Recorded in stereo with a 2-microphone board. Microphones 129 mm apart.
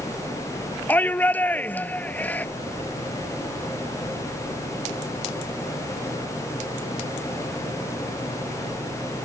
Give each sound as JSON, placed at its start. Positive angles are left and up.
{"t": 0.9, "sound": "a shout", "side_deg": 15}